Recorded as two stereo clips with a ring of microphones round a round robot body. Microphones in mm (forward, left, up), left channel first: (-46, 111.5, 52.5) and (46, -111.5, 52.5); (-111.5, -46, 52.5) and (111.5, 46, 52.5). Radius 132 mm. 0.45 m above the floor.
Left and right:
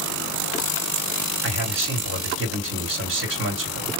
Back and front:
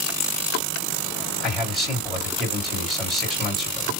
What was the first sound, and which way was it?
A man speaking, 70° right.